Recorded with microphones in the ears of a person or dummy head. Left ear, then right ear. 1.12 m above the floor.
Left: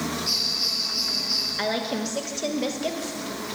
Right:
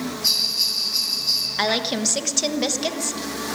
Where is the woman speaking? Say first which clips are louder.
Right 5 dB; 30° right (ahead or behind), 1.0 m.